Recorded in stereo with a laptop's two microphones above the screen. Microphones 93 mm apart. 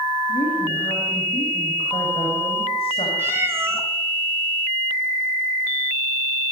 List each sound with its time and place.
0.3 s a woman speaking: 75° left (ahead or behind), 6.5 m
3.2 s a cat meowing: 25° right (ahead or behind), 4 m